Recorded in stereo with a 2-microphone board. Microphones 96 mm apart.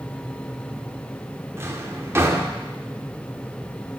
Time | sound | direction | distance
1.6 | a drawer | 25° right (ahead or behind) | 1.2 m